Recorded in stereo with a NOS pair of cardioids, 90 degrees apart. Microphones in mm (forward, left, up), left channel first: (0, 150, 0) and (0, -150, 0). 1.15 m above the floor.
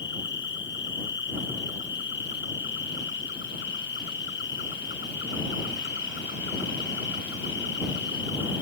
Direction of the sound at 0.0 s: 40° left.